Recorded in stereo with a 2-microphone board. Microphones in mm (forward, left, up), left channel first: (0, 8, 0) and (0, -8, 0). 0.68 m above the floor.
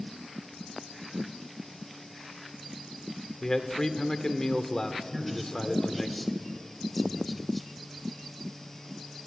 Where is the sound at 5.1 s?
10° left (ahead or behind), 2.5 m.